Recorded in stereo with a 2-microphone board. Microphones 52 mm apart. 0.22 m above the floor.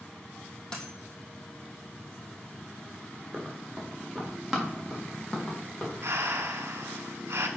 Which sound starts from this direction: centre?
A dropped coin, at 0.7 s.